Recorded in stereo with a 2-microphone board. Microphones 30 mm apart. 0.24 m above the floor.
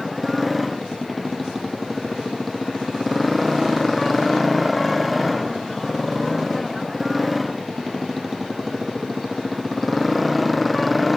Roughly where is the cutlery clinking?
I don't hear cutlery clinking.